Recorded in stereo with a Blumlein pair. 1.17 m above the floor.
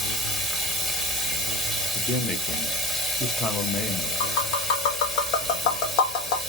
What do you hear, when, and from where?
0.0 s running water: straight ahead, 2.0 m
1.9 s a man speaking: 10° left, 1.2 m
4.2 s tapping: 40° left, 1.3 m